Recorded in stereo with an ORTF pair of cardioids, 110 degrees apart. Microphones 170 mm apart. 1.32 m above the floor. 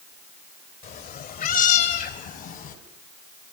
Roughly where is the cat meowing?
Ahead left.